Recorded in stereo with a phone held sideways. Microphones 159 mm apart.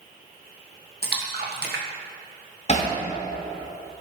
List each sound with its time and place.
1.0 s a splash: 85° right, 1.4 m
2.7 s hammering: 45° left (ahead or behind), 2 m